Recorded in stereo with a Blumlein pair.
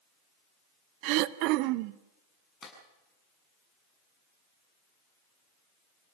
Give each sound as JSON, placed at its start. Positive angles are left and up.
{"t": 1.0, "sound": "throat clearing", "azimuth_deg": -45, "distance_m": 0.6}
{"t": 2.6, "sound": "a clap", "azimuth_deg": 10, "distance_m": 7.0}